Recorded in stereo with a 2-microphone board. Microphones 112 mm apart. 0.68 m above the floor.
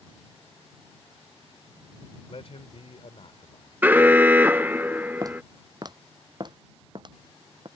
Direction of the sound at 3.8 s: 15° right (ahead or behind).